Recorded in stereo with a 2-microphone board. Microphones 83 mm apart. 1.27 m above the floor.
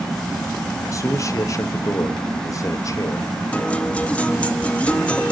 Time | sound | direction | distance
0.9 | a man speaking | 40° left (ahead or behind) | 0.7 m
3.5 | a guitar | 15° left (ahead or behind) | 0.5 m